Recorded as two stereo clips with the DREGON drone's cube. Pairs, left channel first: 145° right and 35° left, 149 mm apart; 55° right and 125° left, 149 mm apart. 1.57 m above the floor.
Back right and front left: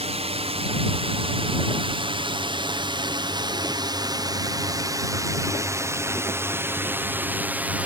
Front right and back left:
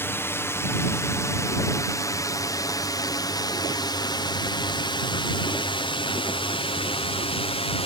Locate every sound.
0.0 s a drone: 15° left; by 7.9 s 40° right